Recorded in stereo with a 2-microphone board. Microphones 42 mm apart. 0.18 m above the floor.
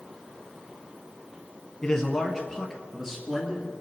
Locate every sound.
1.8 s a man speaking: 5° left (ahead or behind), 1.4 m; by 3.8 s 15° right (ahead or behind), 3 m